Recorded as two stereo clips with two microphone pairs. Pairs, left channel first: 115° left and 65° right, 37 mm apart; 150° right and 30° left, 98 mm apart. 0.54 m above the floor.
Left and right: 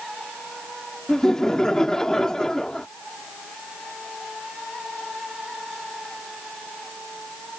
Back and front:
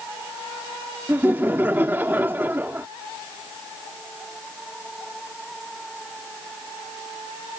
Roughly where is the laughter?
Left.